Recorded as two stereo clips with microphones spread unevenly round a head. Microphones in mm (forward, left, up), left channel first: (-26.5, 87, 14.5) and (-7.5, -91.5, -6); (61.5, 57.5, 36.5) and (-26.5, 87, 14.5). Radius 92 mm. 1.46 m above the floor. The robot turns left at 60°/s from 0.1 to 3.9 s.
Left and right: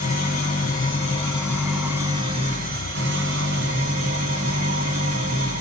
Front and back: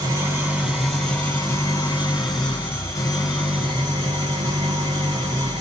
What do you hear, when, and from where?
0.0 s an engine running: 110° left, 2 m; by 5.6 s 120° right, 2 m